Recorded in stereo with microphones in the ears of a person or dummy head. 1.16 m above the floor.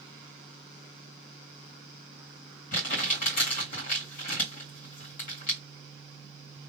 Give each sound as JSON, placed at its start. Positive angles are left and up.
{"t": 2.7, "sound": "crumpling", "side_deg": 45, "distance_m": 1.9}